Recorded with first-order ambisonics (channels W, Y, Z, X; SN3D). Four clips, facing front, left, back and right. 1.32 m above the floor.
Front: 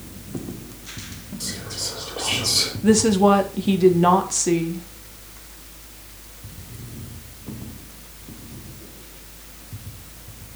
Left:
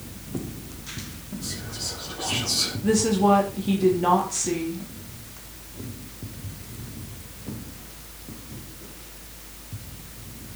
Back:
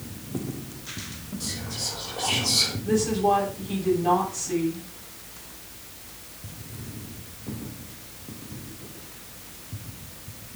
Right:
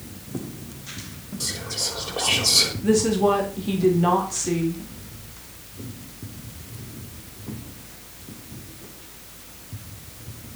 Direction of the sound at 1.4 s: 70° right.